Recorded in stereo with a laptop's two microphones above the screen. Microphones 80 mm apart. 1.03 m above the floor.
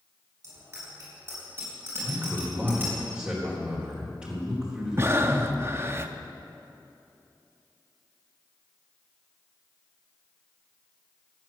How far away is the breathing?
About 0.5 m.